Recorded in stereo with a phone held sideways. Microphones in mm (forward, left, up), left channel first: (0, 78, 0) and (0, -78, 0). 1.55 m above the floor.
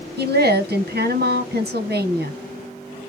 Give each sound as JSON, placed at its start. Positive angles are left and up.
{"t": 0.2, "sound": "a woman speaking", "side_deg": -90, "distance_m": 1.4}